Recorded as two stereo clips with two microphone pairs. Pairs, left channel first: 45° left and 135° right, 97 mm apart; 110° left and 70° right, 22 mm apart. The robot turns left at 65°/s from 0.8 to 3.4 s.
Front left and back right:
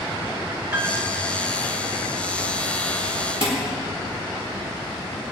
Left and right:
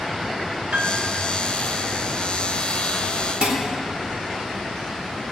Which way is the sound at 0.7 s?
65° right.